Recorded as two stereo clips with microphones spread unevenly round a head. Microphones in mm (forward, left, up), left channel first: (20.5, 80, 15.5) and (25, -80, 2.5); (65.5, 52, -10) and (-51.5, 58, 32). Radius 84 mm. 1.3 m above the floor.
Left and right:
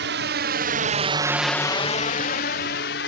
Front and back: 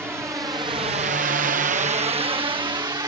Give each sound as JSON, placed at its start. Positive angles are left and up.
{"t": 0.0, "sound": "a drone", "azimuth_deg": -100}